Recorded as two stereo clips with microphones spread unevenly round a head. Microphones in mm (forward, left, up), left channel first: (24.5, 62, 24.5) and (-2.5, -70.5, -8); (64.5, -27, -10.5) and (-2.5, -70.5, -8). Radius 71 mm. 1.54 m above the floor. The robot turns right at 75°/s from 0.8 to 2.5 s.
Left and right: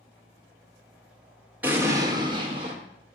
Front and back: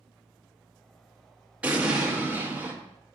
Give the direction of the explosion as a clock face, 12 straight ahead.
6 o'clock.